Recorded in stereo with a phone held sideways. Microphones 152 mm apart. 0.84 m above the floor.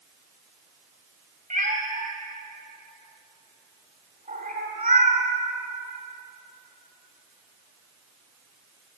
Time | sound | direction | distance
1.5 | a cat meowing | 60° right (ahead or behind) | 1.3 m